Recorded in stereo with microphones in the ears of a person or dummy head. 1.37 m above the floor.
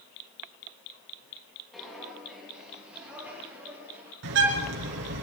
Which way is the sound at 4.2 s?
80° right.